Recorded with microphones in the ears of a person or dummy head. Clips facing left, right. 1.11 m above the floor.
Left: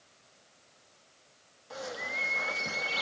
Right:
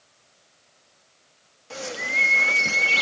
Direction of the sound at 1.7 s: 50° right (ahead or behind).